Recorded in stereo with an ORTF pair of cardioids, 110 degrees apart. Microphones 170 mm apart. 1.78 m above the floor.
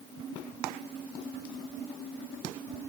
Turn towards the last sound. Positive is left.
No sound to turn to.